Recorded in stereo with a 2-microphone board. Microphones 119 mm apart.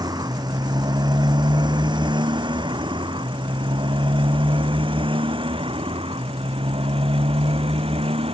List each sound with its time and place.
0.0 s a motorcycle: 35° right (ahead or behind); by 8.3 s 50° right (ahead or behind)